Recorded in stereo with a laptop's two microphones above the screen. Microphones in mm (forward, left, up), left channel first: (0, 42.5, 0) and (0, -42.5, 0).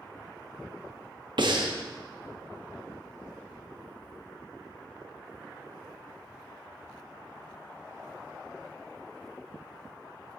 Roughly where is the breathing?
Right.